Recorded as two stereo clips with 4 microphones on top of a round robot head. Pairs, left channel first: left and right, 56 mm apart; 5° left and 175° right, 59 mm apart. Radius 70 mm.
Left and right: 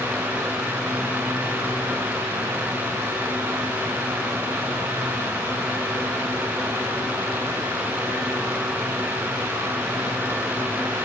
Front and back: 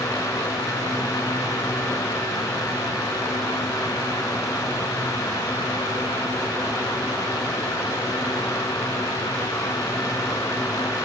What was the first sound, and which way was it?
Only background noise.